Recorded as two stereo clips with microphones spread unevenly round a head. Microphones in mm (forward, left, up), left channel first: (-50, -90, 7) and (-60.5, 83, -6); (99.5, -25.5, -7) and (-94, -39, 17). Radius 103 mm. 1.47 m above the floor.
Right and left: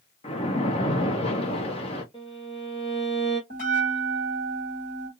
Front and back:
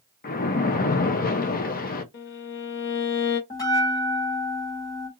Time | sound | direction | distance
0.2 | a splash | 35° right | 0.7 m
2.1 | a violin | 25° right | 1.0 m
3.5 | a bell | 70° right | 1.7 m